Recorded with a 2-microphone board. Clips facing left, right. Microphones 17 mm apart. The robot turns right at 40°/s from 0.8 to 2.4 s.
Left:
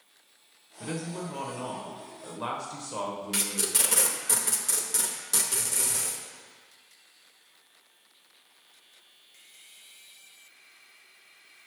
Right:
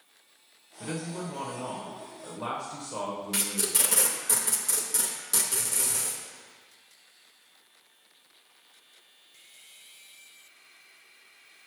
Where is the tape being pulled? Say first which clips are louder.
Left 1 dB; 15° left (ahead or behind), 0.7 m.